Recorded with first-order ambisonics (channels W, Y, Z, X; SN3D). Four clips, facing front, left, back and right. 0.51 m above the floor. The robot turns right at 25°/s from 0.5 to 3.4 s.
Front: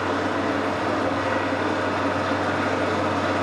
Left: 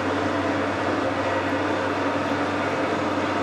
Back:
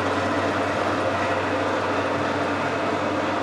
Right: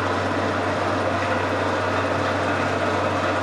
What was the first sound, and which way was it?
An engine running, 150° right.